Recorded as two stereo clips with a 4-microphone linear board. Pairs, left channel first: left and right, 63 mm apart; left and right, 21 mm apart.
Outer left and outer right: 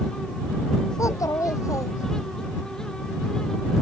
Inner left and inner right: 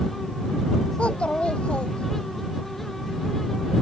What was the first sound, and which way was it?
A child speaking, 60° left (ahead or behind).